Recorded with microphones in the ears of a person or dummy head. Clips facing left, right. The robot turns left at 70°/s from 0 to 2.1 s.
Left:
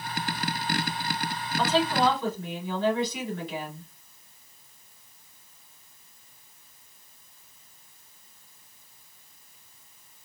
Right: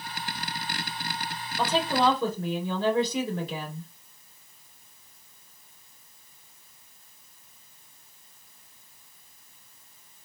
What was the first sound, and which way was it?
A woman speaking, 10° right.